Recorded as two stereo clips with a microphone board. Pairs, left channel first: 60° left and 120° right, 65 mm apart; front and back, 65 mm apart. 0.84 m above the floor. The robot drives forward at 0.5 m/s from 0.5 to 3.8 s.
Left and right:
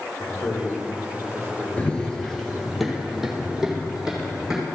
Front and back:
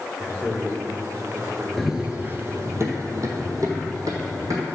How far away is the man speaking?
About 3.5 m.